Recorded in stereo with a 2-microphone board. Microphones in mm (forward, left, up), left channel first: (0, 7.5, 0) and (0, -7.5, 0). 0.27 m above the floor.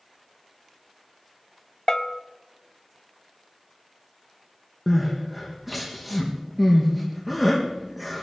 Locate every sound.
1.9 s a bell: 40° left (ahead or behind), 0.8 m
4.9 s crying: 5° right (ahead or behind), 3.5 m